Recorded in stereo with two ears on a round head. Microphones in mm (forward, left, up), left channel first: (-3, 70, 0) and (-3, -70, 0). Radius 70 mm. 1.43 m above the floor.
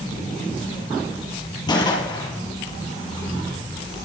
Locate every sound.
1.7 s a gunshot: 30° left (ahead or behind), 6 m